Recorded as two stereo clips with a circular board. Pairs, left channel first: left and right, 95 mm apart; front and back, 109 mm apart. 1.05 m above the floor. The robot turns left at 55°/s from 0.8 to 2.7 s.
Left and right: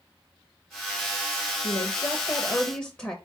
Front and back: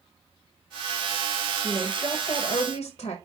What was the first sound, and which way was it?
A woman speaking, 75° left.